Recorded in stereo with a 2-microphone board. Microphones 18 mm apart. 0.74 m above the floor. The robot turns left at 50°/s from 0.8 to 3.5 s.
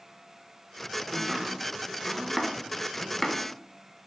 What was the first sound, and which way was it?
Chopping, 35° right (ahead or behind).